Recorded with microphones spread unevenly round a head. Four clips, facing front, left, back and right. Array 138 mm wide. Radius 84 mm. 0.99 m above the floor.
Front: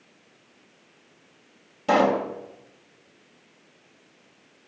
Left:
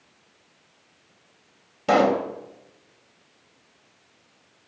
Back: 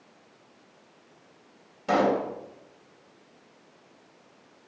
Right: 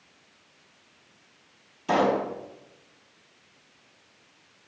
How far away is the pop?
About 3 m.